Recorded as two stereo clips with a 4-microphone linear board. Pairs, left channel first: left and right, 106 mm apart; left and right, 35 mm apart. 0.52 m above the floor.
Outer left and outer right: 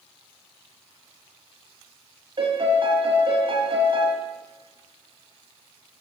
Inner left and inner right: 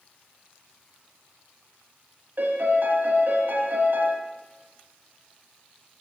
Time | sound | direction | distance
2.4 | a piano | 60° right (ahead or behind) | 1.2 m